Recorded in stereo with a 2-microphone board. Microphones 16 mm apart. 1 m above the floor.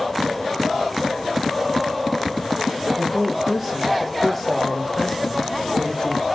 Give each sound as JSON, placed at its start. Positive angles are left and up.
{"t": 3.0, "sound": "a man speaking", "side_deg": -35, "distance_m": 1.5}